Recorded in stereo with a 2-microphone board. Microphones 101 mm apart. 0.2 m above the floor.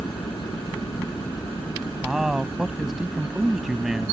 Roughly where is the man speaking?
Centre.